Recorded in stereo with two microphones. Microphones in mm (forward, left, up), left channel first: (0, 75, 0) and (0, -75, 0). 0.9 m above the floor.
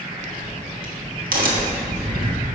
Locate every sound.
0.1 s a crack: 75° right (ahead or behind), 1.4 m